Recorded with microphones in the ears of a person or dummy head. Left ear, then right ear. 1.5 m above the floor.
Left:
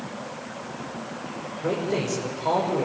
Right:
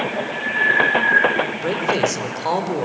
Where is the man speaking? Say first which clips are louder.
Right 2 dB; 85° right, 6 m.